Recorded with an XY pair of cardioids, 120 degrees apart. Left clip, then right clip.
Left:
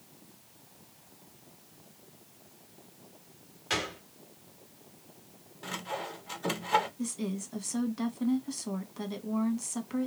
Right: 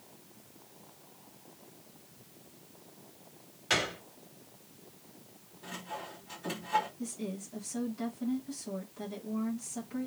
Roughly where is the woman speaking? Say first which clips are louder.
Left 3 dB; ahead left.